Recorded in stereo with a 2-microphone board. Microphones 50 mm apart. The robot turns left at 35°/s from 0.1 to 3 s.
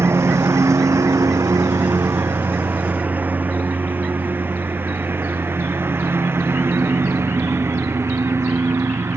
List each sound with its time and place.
0.0 s a lawn mower: 60° right (ahead or behind)